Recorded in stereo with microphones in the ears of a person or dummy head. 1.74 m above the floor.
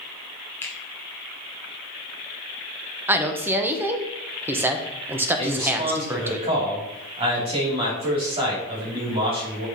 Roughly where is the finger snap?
Centre.